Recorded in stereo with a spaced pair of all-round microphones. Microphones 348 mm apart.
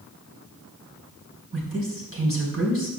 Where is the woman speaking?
40° right (ahead or behind), 4.5 m.